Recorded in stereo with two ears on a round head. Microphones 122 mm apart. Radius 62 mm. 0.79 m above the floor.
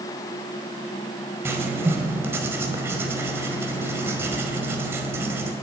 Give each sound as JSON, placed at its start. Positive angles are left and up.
{"t": 1.4, "sound": "writing", "side_deg": -20, "distance_m": 1.7}